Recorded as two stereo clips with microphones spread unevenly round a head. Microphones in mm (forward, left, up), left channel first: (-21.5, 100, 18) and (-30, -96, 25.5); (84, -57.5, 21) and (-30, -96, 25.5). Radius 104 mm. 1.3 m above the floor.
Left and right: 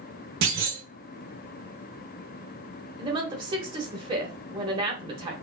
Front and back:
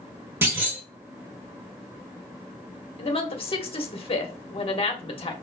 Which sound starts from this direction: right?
A clunk, at 0.4 s.